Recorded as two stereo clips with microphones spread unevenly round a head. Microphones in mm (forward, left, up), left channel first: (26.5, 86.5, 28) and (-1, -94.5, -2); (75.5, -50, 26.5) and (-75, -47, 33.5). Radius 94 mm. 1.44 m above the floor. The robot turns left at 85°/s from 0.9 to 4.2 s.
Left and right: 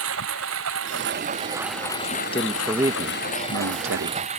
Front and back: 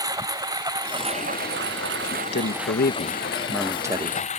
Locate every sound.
0.0 s a lawn mower: 115° right; by 4.4 s 45° right
2.0 s a man speaking: 45° left; by 4.2 s 135° right